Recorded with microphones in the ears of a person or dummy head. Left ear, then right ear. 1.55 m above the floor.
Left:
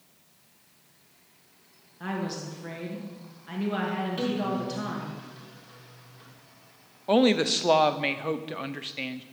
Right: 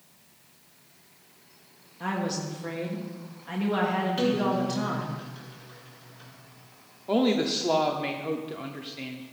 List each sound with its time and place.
2.0 s a woman speaking: 5° right (ahead or behind), 1.5 m
4.2 s a guitar: 5° right (ahead or behind), 2 m
7.1 s a woman speaking: 40° left (ahead or behind), 0.6 m